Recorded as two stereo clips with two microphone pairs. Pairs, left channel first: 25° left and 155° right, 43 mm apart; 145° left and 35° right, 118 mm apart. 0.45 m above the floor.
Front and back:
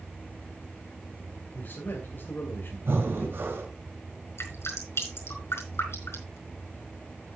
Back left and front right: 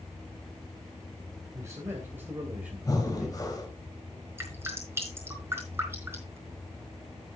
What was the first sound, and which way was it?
A man speaking, 25° left.